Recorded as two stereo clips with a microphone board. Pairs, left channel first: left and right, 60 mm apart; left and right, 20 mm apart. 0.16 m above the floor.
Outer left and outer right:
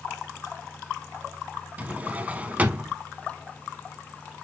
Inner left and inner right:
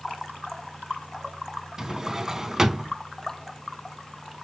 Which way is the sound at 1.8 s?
25° right (ahead or behind).